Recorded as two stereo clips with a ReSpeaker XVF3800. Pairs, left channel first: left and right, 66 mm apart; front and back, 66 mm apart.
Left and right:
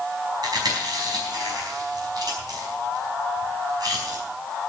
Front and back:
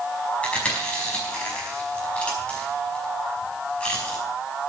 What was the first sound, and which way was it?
Chewing, 70° right.